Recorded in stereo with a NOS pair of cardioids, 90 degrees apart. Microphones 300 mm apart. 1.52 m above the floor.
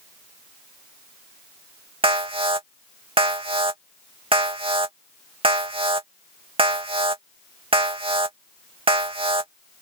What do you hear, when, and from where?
2.0 s an alarm: 15° right